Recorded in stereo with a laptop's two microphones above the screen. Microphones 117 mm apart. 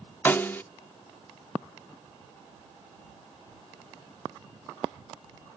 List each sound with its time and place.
0.2 s a snare drum: 15° left (ahead or behind)